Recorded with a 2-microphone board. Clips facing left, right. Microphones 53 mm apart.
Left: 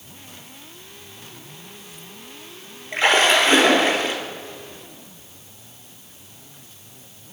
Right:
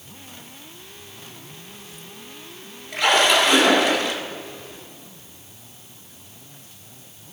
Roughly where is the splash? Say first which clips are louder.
Left 1 dB; left.